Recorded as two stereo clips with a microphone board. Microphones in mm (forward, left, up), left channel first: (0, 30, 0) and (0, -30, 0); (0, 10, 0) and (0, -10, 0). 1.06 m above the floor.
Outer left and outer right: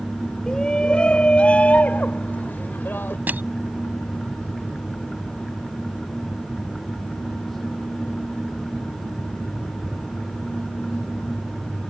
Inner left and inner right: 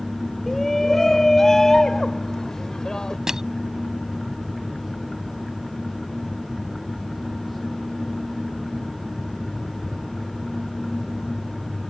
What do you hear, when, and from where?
0.5 s a shout: 10° left (ahead or behind); by 3.2 s 35° left (ahead or behind)
3.3 s crushing: 35° right (ahead or behind)